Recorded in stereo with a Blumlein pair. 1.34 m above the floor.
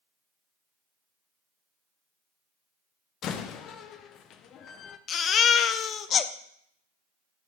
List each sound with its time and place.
3.2 s a door slam: 30° left, 0.6 m
5.1 s a baby crying: 25° left, 0.5 m